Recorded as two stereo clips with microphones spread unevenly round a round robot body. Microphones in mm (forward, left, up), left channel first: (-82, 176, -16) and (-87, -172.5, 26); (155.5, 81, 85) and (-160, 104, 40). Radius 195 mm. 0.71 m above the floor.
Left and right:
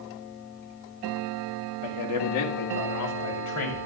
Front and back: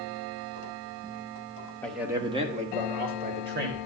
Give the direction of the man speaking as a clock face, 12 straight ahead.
9 o'clock.